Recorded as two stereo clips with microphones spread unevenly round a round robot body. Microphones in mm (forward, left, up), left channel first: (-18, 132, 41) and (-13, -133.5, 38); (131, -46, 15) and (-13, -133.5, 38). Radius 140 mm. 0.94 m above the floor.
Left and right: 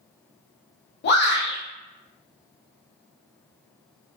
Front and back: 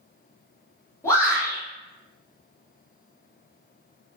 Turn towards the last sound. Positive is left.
turn(degrees=85)